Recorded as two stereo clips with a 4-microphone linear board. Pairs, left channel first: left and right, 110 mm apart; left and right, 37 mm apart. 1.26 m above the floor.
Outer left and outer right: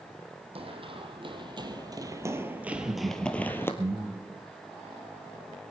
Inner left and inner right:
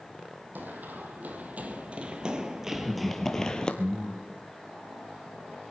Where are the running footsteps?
55° right (ahead or behind), 2 m; by 3.7 s 20° left (ahead or behind), 1.4 m.